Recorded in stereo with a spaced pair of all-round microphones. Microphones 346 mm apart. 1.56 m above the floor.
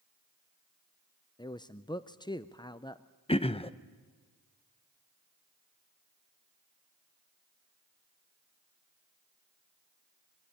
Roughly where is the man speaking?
Centre.